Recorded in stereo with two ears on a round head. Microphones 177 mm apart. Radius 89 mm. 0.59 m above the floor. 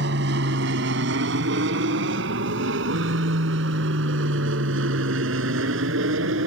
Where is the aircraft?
55° right (ahead or behind); by 6.5 s 65° right (ahead or behind).